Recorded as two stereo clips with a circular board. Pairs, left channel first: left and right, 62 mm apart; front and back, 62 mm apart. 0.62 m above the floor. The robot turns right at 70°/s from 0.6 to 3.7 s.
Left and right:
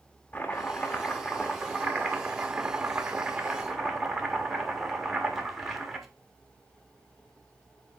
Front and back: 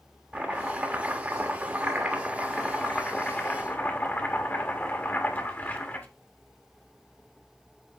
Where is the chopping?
135° left, 1.2 m; by 6.1 s 5° right, 1.2 m.